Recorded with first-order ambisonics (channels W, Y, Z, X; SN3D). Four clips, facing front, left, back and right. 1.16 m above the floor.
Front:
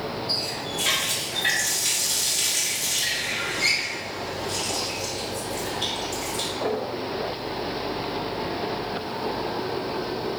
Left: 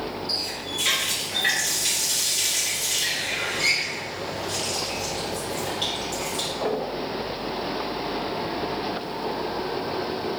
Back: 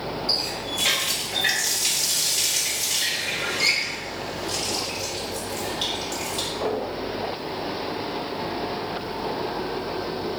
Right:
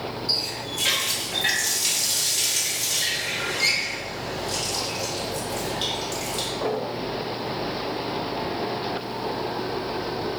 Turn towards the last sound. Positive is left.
turn(degrees=-135)